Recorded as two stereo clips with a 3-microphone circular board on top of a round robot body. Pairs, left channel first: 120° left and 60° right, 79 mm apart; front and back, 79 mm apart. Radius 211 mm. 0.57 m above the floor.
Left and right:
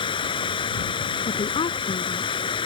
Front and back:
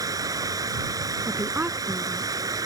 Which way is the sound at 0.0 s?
135° left.